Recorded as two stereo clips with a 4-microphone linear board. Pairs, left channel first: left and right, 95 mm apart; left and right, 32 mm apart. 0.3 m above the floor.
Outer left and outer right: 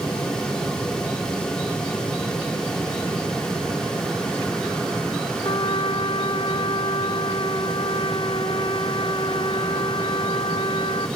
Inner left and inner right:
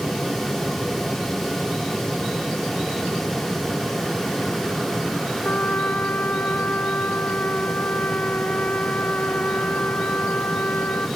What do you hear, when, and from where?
5.4 s a trumpet: 60° left (ahead or behind), 1.4 m